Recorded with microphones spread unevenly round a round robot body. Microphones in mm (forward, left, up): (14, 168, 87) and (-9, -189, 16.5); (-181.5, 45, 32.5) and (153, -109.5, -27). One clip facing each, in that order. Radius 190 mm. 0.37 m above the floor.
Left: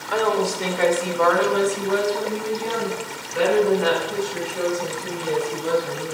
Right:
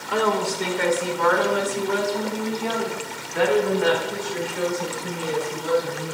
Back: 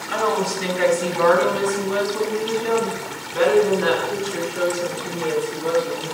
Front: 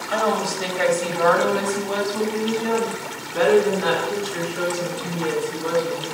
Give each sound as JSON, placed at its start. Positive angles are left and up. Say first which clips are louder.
{"t": 0.1, "sound": "a woman speaking", "louder": "left 2 dB, back 1 dB", "azimuth_deg": -20, "distance_m": 1.5}